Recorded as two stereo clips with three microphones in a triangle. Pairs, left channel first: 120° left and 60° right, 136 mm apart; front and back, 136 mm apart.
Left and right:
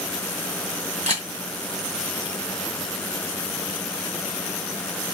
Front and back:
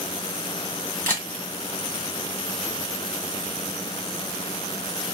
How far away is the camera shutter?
About 1.5 m.